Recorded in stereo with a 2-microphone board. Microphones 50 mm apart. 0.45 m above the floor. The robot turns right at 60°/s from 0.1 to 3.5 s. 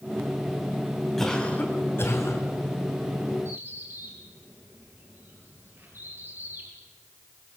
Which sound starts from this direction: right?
A bird, at 3.5 s.